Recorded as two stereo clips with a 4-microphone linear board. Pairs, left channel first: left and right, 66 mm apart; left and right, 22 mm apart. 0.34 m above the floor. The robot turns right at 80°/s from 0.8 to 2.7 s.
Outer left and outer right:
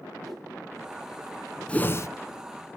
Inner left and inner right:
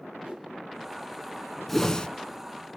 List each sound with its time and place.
0.2 s a whoosh: 70° right (ahead or behind), 9 m
1.7 s a whoosh: 15° left, 0.7 m; by 2.1 s 50° left, 0.7 m